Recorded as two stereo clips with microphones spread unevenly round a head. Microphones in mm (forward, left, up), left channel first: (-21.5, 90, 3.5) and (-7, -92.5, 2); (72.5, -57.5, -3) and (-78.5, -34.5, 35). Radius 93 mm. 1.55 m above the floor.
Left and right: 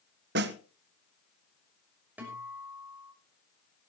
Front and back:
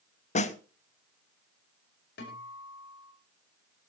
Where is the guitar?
5° right, 6 m.